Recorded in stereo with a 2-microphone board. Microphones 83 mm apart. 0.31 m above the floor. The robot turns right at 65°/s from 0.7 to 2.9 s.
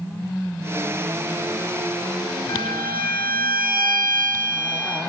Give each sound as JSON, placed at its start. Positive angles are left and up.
{"t": 2.5, "sound": "a violin", "side_deg": 75, "distance_m": 0.6}